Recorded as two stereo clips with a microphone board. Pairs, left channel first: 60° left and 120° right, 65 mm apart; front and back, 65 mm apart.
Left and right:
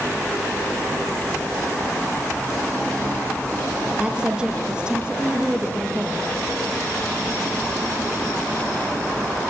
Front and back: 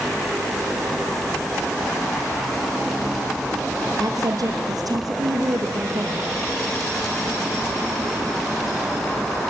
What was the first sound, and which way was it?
A woman speaking, 165° left.